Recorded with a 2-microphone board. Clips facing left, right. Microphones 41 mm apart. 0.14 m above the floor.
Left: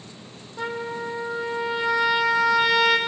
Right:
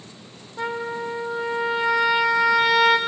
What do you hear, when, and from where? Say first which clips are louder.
0.6 s a trumpet: right 2 dB; 5° right (ahead or behind), 3 m